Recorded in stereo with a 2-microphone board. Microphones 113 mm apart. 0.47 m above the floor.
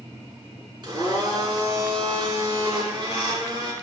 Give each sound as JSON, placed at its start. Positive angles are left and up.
{"t": 0.8, "sound": "a blender", "side_deg": -40, "distance_m": 4.0}